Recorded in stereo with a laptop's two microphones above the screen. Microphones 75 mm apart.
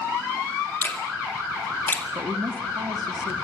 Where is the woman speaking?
85° right, 1.6 m.